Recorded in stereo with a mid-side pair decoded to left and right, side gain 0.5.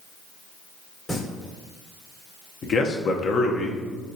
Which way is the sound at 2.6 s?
50° left.